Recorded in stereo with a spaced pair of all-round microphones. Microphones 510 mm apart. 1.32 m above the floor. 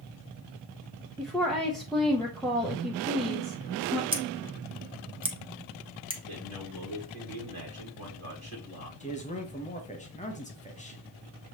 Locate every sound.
1.2 s a woman speaking: centre (ahead or behind), 0.7 m
4.1 s scissors: 10° right (ahead or behind), 0.8 m
6.3 s a man speaking: 70° right (ahead or behind), 2 m
9.0 s a man speaking: 15° left (ahead or behind), 1.0 m